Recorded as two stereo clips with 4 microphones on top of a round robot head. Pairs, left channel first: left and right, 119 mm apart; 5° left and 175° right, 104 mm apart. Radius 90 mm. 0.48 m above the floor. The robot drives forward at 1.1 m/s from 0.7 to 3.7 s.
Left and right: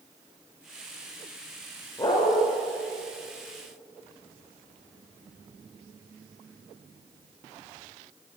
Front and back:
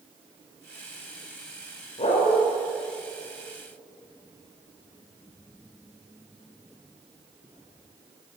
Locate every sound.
2.0 s a dog barking: 30° left, 9 m; by 2.4 s 35° left, 8.5 m